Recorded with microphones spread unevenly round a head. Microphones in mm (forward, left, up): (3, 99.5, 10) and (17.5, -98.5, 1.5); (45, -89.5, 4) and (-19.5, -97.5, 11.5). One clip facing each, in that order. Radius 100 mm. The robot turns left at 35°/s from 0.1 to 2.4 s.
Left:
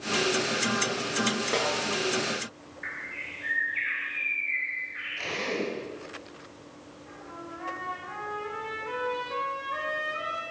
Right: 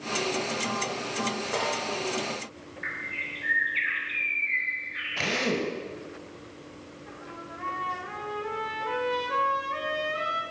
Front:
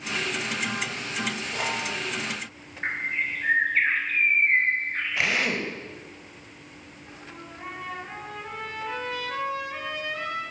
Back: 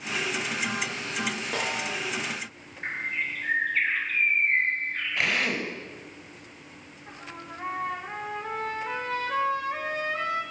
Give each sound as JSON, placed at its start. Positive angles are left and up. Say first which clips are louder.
{"t": 1.5, "sound": "a snare drum", "louder": "left 2 dB, front 1 dB", "azimuth_deg": 145, "distance_m": 8.0}
{"t": 2.8, "sound": "a bird", "louder": "right 3 dB, front 3 dB", "azimuth_deg": -45, "distance_m": 5.0}
{"t": 5.2, "sound": "a drill", "louder": "right 3 dB, front 1 dB", "azimuth_deg": -80, "distance_m": 5.0}
{"t": 7.1, "sound": "a trumpet", "louder": "left 2 dB, back 3 dB", "azimuth_deg": -125, "distance_m": 8.5}